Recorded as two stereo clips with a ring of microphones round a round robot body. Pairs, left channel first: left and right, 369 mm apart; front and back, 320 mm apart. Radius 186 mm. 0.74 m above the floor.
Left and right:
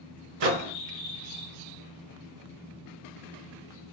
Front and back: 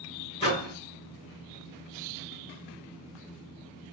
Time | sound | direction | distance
0.4 | a microwave | 75° right | 0.7 m